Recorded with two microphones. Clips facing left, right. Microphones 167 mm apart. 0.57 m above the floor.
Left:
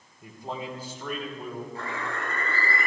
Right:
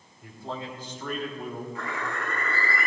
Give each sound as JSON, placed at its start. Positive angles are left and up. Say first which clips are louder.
{"t": 0.2, "sound": "a man speaking", "louder": "left 1 dB", "side_deg": 20, "distance_m": 2.0}
{"t": 1.8, "sound": "a bird", "louder": "even", "side_deg": 35, "distance_m": 6.5}